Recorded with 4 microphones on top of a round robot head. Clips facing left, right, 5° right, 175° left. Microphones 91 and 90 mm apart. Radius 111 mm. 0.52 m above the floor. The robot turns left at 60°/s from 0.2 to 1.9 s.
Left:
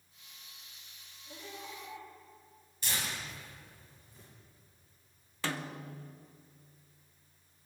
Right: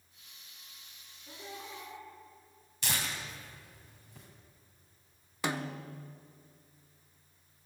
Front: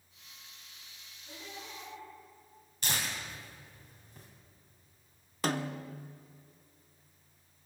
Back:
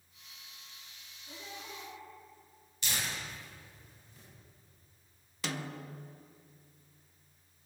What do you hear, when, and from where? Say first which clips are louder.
1.3 s laughter: right 1 dB, even; 95° right, 7.5 m; by 2.1 s 130° right, 7.5 m
2.8 s tearing paper: right 2 dB, front 2 dB; 60° right, 3 m
5.4 s a snare drum: right 3 dB, front 6 dB; 25° right, 0.9 m